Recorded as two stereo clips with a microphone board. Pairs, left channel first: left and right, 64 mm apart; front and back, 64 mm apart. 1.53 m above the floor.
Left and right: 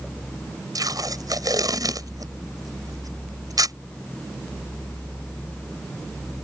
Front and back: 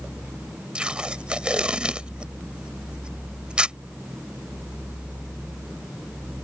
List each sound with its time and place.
0.8 s tape being pulled: 105° right